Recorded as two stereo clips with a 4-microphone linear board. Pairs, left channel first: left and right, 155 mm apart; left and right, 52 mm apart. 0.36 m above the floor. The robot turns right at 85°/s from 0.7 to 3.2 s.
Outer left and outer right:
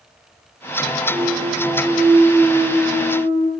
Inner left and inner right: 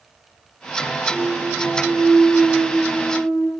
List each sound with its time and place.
1.1 s a clunk: 125° right, 4.5 m; by 3.5 s 55° left, 4.5 m